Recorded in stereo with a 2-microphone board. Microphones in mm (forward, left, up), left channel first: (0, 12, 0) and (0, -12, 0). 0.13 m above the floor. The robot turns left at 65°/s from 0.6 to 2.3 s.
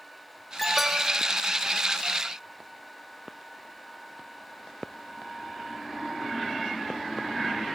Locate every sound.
0.6 s an alarm: 5° left, 3 m; by 1.2 s 35° right, 3 m